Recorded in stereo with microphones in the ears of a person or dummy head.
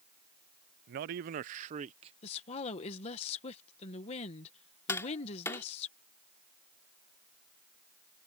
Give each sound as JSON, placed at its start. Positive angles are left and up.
{"t": 0.9, "sound": "a man speaking", "side_deg": -45}
{"t": 2.2, "sound": "a woman speaking", "side_deg": 35}
{"t": 4.9, "sound": "tapping", "side_deg": 15}